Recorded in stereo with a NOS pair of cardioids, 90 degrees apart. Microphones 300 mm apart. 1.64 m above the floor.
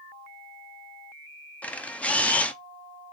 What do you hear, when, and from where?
1.6 s a camera shutter: 5° left, 0.9 m